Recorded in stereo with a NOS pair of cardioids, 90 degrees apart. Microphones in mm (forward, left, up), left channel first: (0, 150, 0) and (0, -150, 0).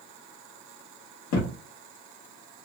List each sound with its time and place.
1.3 s a thud: 70° left, 1.2 m